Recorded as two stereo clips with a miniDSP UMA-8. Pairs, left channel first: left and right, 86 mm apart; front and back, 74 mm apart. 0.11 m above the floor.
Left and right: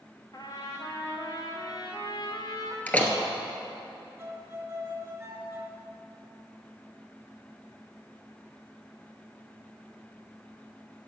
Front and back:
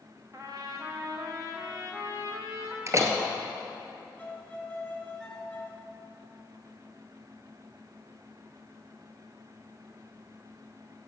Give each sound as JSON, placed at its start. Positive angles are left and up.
{"t": 0.3, "sound": "a trumpet", "azimuth_deg": 135, "distance_m": 2.0}
{"t": 2.9, "sound": "a door slam", "azimuth_deg": 155, "distance_m": 1.3}
{"t": 4.2, "sound": "a violin", "azimuth_deg": -60, "distance_m": 1.4}